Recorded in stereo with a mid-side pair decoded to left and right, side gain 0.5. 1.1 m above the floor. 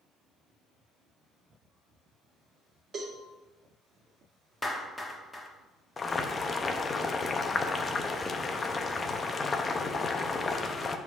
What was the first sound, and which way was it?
A cowbell, 35° right.